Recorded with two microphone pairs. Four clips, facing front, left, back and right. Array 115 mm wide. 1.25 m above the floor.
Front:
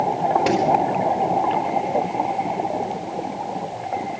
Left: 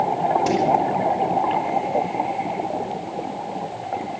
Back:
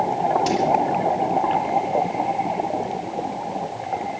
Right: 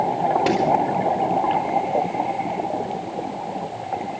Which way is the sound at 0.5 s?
50° right.